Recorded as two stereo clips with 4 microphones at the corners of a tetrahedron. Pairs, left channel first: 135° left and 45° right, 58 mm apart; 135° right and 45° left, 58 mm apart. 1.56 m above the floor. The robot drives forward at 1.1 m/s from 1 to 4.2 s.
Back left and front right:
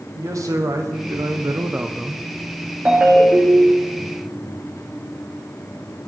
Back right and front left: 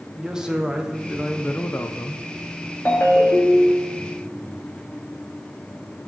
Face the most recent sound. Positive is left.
turn(degrees=-140)